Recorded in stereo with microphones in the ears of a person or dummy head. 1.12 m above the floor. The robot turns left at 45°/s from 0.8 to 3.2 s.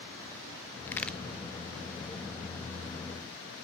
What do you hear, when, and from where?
0.9 s a crack: 15° left (ahead or behind), 0.9 m; by 1.2 s centre (ahead or behind), 0.9 m